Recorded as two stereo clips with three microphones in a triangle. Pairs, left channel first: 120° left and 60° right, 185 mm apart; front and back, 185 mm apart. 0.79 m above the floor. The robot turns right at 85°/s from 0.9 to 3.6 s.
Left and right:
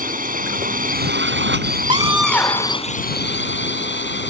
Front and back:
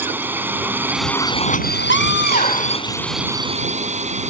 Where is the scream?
Straight ahead; by 2.8 s 80° left.